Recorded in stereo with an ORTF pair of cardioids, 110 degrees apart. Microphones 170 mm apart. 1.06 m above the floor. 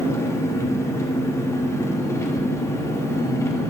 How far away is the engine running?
About 1.8 m.